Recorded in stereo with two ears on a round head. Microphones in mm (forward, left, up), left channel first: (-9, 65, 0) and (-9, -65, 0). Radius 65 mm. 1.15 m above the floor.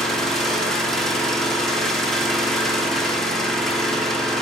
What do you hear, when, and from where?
0.0 s an engine running: 5° left (ahead or behind), 1.1 m